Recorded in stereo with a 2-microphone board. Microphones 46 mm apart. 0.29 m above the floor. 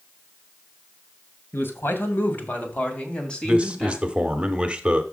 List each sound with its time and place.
1.5 s a man speaking: 55° left (ahead or behind), 2.0 m; by 4.4 s 5° right (ahead or behind), 2.5 m
3.4 s a man speaking: 25° right (ahead or behind), 0.9 m